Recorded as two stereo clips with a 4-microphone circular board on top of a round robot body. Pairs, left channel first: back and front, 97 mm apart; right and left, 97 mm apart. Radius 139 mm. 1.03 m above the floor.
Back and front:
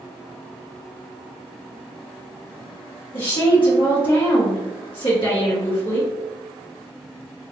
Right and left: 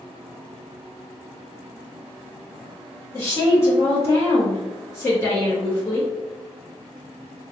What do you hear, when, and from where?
3.1 s a woman speaking: 150° right, 1.7 m